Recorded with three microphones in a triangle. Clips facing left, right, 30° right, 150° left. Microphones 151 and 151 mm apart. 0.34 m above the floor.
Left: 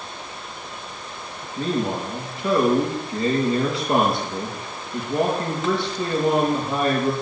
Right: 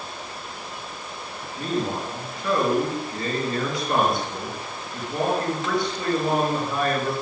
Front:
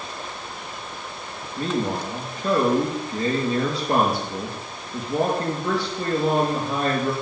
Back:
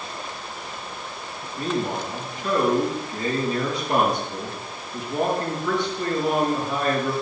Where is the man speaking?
25° left, 6.5 m.